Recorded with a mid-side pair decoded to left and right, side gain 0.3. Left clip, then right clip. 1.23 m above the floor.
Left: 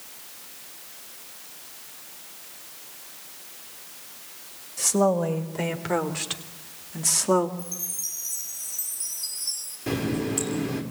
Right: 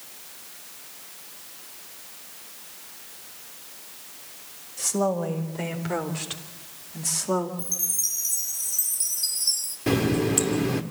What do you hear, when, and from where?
4.8 s a woman speaking: 40° left, 5.5 m; by 7.5 s 55° left, 2 m
7.6 s a chime: 70° right, 1.9 m
9.9 s a running tap: 60° right, 2.5 m